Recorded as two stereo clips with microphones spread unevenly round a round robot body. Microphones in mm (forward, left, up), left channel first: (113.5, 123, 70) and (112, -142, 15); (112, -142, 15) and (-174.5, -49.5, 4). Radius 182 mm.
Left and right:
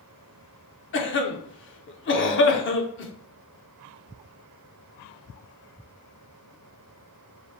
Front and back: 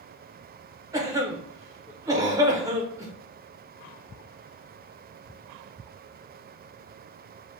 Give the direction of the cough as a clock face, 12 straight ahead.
9 o'clock.